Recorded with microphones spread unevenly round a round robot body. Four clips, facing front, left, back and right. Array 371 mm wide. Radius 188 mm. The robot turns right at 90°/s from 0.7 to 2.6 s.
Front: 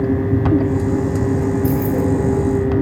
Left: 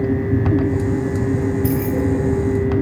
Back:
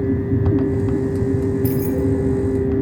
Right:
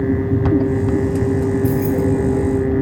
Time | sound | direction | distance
1.6 | keys jangling | 165° left | 0.9 m